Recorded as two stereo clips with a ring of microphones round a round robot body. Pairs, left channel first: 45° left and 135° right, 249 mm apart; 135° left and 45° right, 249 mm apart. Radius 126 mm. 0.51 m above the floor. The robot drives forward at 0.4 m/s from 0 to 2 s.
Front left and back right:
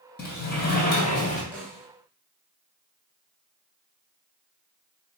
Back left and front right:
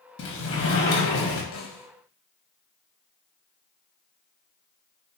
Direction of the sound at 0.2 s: 95° left.